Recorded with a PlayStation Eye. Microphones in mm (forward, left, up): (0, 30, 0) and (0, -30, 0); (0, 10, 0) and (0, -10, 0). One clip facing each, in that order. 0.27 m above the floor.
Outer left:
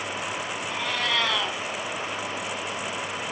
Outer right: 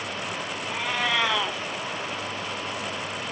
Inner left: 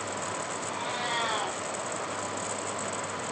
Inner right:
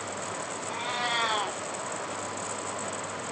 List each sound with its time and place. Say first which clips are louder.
0.7 s a cat meowing: outer right 2 dB, inner right 3 dB; 15° right (ahead or behind), 1.2 m